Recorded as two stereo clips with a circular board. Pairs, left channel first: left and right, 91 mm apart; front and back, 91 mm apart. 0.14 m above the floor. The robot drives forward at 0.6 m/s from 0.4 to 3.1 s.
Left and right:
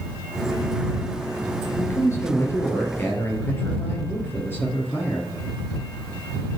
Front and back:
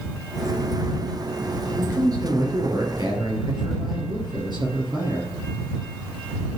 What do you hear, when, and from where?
1.8 s a man speaking: 145° left, 2.5 m; by 5.3 s 155° left, 3.5 m